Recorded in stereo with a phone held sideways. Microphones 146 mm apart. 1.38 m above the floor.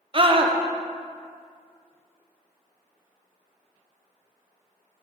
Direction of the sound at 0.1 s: 40° right (ahead or behind).